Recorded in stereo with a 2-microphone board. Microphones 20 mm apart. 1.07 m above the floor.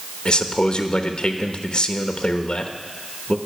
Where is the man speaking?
45° left (ahead or behind), 1.0 m.